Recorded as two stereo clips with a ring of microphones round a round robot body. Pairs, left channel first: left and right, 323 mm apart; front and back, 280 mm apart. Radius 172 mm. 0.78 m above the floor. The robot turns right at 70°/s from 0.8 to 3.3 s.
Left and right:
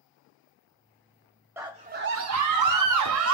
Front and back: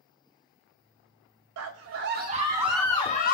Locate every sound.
1.6 s a scream: 175° right, 0.7 m; by 3.3 s 50° right, 0.7 m